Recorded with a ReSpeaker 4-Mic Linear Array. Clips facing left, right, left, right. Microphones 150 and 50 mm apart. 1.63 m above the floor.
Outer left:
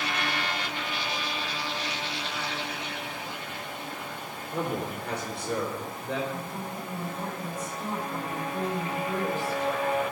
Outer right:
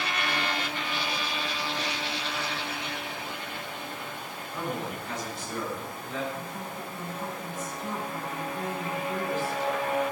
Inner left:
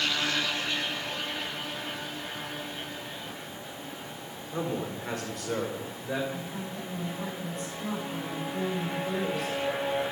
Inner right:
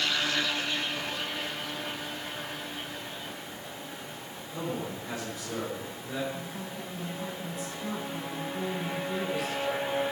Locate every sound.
4.5 s a man speaking: 55° left (ahead or behind), 4 m; by 6.2 s 75° left (ahead or behind), 6 m
6.3 s a woman speaking: 60° left (ahead or behind), 7.5 m